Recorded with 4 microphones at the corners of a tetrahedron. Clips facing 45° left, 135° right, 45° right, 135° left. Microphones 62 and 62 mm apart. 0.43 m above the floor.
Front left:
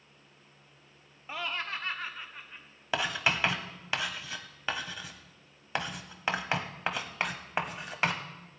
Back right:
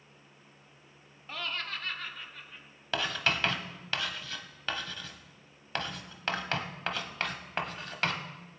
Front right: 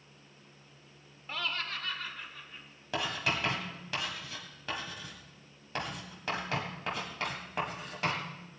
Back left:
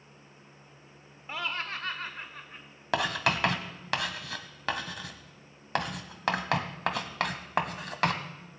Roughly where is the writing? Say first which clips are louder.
Front left 1 dB, back left 5 dB; behind left.